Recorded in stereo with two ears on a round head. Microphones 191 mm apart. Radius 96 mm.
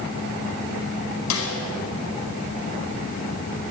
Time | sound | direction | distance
1.3 | a snare drum | 85° left | 4.5 m